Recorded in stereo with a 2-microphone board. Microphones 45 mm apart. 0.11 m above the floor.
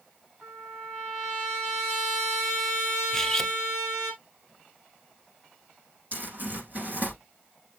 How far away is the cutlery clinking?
About 0.7 m.